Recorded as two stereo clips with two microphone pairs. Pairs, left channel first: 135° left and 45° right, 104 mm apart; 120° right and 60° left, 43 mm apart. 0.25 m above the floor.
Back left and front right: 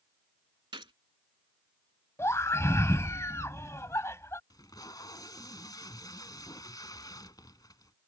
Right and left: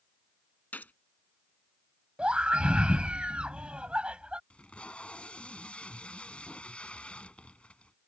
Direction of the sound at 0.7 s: 75° right.